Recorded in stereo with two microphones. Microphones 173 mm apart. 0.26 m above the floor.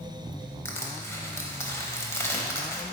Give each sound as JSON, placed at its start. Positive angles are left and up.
{"t": 0.7, "sound": "crushing", "side_deg": 15, "distance_m": 0.8}